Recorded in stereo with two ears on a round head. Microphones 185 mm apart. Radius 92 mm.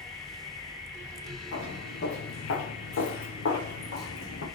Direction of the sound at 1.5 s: 65° left (ahead or behind).